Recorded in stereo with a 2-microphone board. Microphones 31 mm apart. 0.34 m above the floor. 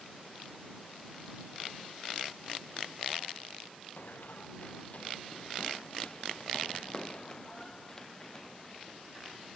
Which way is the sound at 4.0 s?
65° left (ahead or behind).